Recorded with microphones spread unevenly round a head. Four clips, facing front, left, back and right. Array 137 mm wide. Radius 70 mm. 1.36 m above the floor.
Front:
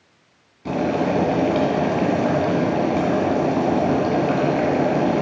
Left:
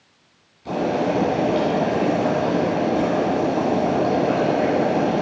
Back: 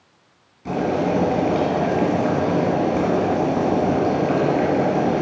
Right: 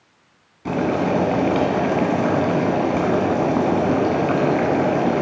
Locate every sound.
0.7 s boiling: 55° right, 1.8 m